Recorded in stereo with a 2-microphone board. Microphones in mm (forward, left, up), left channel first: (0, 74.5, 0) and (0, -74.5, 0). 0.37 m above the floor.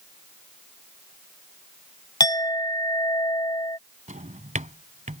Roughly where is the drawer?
Right.